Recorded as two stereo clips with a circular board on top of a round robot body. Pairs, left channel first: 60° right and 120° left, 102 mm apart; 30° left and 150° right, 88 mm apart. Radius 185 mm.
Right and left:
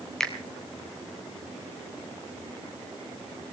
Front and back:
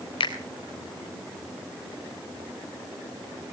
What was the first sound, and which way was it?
A finger snap, 25° left.